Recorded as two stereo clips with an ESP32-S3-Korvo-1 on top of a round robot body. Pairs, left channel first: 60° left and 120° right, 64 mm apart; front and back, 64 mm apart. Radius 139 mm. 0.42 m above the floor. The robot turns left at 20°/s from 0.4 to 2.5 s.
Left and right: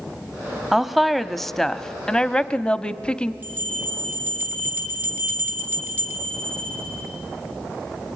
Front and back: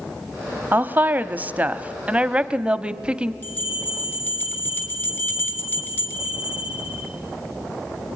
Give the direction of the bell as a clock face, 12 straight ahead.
2 o'clock.